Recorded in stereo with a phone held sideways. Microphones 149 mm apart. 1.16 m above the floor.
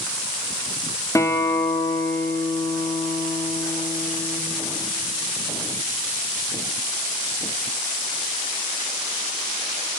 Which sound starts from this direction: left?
A guitar, at 1.1 s.